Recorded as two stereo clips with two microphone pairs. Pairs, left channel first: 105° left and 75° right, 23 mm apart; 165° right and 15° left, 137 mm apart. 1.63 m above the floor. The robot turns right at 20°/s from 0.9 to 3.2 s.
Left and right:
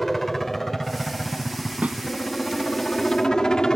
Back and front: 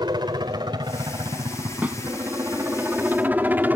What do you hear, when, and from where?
0.0 s a helicopter: 35° left; by 3.8 s 80° left
1.8 s a snare drum: 65° right; by 2.0 s 60° right